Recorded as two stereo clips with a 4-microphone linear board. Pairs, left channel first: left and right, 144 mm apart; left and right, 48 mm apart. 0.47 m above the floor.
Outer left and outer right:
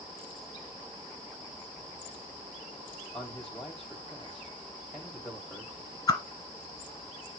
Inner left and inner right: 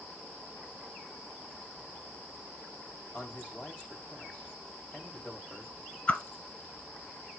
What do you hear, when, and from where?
3.1 s a man speaking: centre (ahead or behind), 2.5 m
6.1 s a whoosh: 25° left (ahead or behind), 1.4 m